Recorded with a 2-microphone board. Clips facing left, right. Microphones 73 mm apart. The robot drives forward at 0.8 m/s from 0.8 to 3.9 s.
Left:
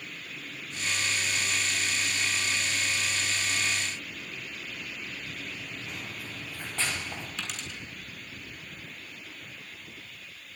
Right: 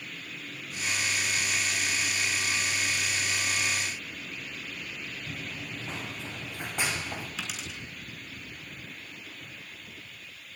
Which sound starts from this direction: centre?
A dropped coin, at 7.4 s.